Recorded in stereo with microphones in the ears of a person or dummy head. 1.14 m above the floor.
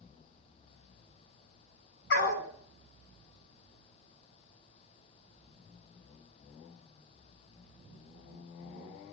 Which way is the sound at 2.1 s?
70° left (ahead or behind).